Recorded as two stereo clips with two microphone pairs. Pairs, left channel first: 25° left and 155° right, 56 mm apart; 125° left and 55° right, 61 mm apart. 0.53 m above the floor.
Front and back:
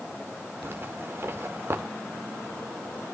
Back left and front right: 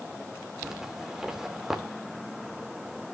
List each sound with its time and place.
0.6 s a zipper: 135° right, 2.0 m